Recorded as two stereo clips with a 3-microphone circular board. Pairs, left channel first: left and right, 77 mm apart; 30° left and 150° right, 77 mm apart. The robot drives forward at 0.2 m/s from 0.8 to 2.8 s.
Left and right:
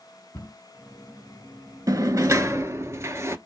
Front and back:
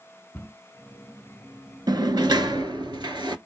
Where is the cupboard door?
80° left, 1.6 m.